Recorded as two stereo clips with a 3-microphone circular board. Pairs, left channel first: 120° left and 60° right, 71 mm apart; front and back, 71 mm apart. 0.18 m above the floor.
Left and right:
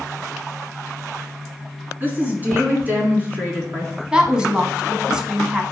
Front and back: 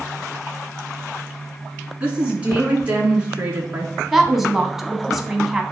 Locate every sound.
2.0 s a woman speaking: 115° right, 2.0 m
4.1 s a woman speaking: 100° right, 1.1 m